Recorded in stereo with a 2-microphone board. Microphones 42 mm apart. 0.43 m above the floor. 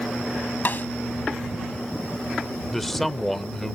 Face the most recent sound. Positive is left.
turn(degrees=5)  # may be behind; listen again after turning